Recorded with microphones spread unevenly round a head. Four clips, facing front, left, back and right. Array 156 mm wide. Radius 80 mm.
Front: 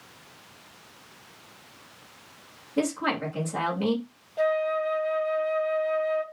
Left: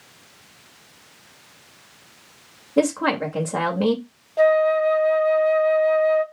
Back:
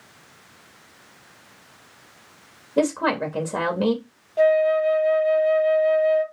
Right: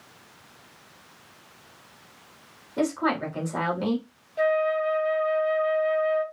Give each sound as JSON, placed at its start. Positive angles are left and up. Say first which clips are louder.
{"t": 2.8, "sound": "a woman speaking", "louder": "left 5 dB, back 6 dB", "azimuth_deg": 130, "distance_m": 2.5}
{"t": 4.4, "sound": "a flute", "louder": "left 7 dB, back 7 dB", "azimuth_deg": 120, "distance_m": 1.5}